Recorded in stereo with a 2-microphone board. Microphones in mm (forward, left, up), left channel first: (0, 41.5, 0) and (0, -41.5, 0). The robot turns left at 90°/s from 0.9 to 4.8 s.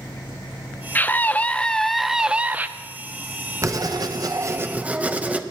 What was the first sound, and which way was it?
A scream, 25° left (ahead or behind).